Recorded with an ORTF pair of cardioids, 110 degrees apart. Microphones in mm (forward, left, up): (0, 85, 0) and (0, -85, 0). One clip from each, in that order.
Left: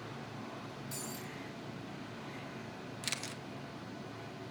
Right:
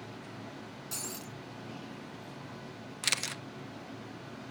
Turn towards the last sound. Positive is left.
turn(degrees=-40)